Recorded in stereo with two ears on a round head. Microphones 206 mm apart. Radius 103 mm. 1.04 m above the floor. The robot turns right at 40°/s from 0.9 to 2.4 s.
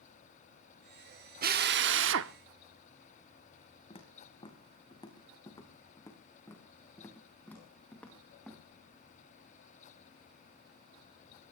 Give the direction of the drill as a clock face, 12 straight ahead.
4 o'clock.